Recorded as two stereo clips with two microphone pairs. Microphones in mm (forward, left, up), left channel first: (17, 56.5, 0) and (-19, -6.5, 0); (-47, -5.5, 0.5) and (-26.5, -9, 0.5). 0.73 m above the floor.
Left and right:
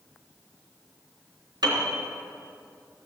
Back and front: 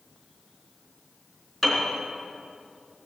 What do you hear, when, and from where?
1.6 s a piano: 105° right, 3 m